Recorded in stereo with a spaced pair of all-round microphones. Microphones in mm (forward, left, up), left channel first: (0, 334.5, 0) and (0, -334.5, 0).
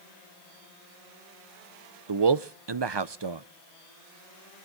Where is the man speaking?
40° right (ahead or behind), 0.7 m.